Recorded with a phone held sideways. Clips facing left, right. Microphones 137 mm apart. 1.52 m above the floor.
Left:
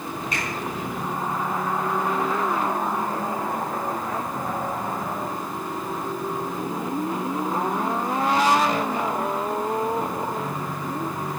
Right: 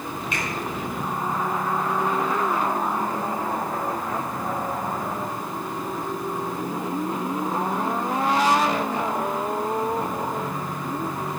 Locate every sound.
0.3 s a finger snap: 40° left (ahead or behind), 6 m